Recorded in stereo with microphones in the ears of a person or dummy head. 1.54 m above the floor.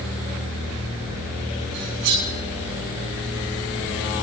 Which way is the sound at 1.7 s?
70° right (ahead or behind).